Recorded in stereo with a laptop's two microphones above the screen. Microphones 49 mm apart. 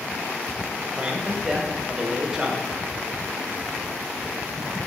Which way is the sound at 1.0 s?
15° right (ahead or behind).